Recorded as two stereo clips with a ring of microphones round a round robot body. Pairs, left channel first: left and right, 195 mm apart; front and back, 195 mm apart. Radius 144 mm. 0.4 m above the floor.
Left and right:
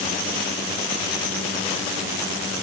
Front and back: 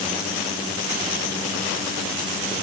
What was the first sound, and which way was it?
Only background noise.